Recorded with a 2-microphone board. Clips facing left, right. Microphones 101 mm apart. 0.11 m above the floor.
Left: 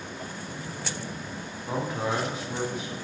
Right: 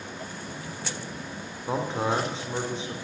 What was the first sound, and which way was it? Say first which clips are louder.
A man speaking: right 2 dB; 25° right (ahead or behind).